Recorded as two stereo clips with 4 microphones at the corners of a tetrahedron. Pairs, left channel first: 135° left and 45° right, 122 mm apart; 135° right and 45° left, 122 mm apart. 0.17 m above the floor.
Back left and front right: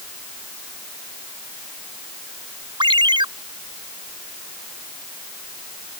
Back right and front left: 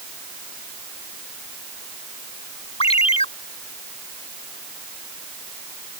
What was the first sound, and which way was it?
A ringtone, 95° right.